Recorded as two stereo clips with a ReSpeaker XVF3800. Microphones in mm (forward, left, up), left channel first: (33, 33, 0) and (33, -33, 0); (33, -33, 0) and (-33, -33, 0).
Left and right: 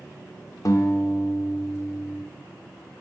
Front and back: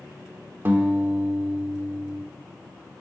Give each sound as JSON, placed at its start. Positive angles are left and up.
{"t": 0.7, "sound": "a guitar", "azimuth_deg": 125, "distance_m": 0.5}